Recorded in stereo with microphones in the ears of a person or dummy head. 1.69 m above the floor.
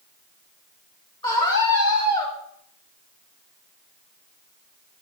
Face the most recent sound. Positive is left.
turn(degrees=35)  # may be behind; listen again after turning